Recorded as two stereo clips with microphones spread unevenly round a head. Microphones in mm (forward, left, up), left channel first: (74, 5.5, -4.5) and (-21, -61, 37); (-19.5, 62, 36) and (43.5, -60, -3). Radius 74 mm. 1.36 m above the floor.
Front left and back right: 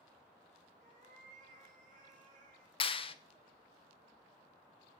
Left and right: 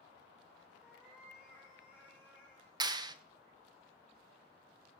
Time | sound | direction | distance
0.8 | a cat meowing | 150° right | 5.5 m
2.8 | a clap | 5° right | 1.0 m